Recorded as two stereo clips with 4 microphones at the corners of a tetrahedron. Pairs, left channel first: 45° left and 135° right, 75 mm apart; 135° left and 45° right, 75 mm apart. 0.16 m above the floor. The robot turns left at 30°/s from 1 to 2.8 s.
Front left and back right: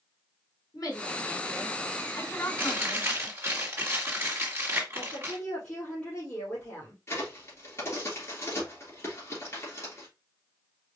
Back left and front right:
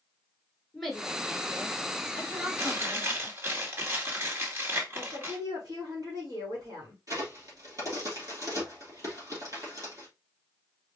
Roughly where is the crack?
Ahead.